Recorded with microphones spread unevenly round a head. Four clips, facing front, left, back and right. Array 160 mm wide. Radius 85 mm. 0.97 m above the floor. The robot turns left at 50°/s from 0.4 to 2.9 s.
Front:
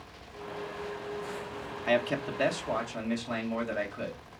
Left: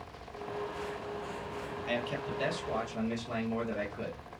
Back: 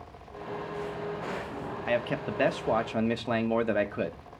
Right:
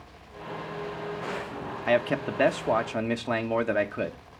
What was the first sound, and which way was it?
A man speaking, 80° right.